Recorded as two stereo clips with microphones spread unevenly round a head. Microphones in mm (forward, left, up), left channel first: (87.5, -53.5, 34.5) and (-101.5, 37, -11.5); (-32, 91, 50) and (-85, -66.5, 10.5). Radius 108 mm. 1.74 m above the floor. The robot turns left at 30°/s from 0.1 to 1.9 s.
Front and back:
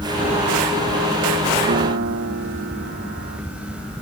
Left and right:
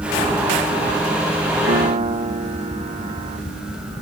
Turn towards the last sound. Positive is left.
turn(degrees=-160)